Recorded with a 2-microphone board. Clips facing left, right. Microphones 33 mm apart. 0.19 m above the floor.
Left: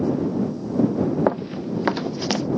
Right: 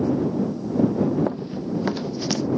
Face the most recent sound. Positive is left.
turn(degrees=20)  # may be behind; listen again after turning